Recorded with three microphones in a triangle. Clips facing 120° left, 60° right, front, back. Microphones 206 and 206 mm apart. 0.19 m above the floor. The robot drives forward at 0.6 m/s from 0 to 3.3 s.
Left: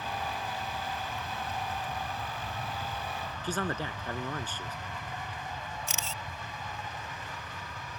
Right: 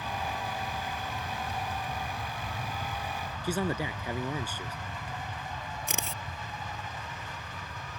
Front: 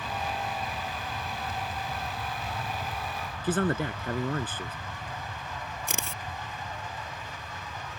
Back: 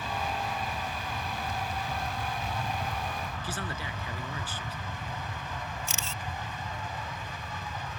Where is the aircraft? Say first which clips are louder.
Right 1 dB, even; 105° right; by 8.0 s 135° right.